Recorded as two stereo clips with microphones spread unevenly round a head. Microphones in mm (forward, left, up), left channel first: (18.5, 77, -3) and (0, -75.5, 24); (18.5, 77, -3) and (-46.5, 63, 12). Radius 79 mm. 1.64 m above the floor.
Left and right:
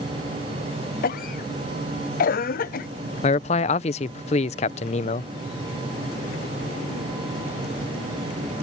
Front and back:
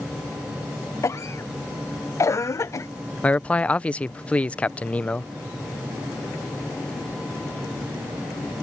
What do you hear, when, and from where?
1.0 s a cough: 55° left
3.2 s a man speaking: 85° left